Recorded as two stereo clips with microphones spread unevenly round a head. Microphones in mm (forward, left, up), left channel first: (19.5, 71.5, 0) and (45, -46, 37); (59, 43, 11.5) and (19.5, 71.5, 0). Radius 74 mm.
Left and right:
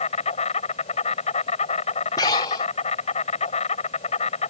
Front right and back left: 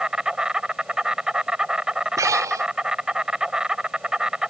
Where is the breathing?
170° left.